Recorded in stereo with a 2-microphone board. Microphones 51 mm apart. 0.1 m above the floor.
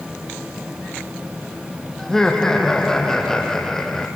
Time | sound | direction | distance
2.0 | laughter | 10° left (ahead or behind) | 3 m